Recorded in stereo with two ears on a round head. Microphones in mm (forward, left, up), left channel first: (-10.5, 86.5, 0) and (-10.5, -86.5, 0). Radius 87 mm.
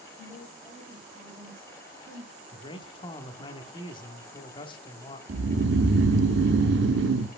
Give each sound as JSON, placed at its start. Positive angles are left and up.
{"t": 0.2, "sound": "a woman speaking", "side_deg": -10, "distance_m": 3.5}
{"t": 2.5, "sound": "a man speaking", "side_deg": 25, "distance_m": 1.1}
{"t": 5.3, "sound": "snoring", "side_deg": -60, "distance_m": 0.7}